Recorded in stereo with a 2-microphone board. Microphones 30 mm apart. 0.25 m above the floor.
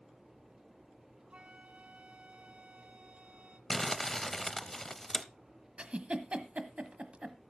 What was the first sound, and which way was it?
A flute, 45° right (ahead or behind).